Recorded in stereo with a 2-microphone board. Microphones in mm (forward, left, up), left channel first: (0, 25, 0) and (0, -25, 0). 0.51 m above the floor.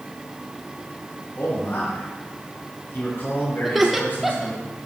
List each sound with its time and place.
1.4 s a man speaking: 45° left (ahead or behind), 4.5 m
3.6 s laughter: 5° right (ahead or behind), 1.2 m